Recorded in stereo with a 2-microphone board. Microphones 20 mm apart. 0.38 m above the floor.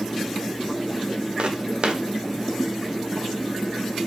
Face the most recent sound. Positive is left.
turn(degrees=-65)  # may be behind; listen again after turning